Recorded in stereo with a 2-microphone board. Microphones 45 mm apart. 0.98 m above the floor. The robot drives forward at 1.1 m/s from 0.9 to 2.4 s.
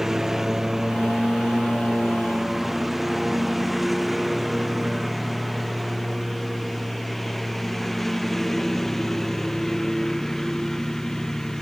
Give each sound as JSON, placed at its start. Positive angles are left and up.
{"t": 0.0, "sound": "a lawn mower", "side_deg": -5}